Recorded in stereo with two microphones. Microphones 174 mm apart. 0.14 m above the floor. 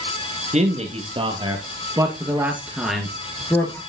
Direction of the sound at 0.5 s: 40° right (ahead or behind).